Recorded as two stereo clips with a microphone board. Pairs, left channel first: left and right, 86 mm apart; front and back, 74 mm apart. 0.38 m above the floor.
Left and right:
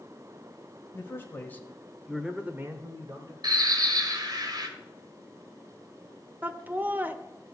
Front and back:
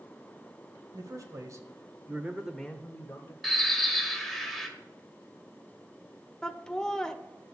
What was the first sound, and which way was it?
A man speaking, 150° left.